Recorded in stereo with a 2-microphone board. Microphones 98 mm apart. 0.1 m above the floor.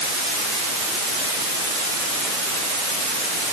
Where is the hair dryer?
No hair dryer in this recording.